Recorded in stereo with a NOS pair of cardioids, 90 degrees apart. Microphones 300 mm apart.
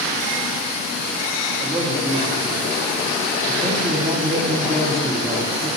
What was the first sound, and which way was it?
A man speaking, straight ahead.